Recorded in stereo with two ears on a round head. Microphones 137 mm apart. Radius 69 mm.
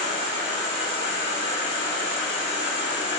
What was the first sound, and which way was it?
An insect, 50° right (ahead or behind).